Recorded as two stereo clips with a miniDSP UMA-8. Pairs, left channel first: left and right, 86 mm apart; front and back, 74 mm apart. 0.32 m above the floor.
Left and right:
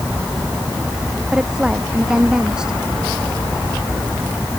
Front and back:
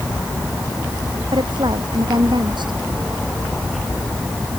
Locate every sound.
1.3 s a woman speaking: 170° right